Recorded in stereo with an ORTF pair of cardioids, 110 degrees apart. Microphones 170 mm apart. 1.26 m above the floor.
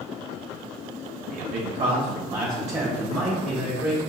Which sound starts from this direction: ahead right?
A man speaking, at 1.3 s.